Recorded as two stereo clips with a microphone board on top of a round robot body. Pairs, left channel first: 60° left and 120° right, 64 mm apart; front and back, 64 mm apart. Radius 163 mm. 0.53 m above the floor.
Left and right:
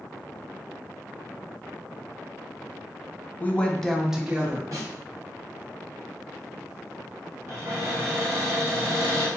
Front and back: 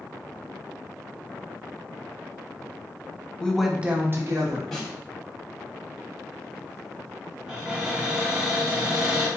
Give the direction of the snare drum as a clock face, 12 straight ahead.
3 o'clock.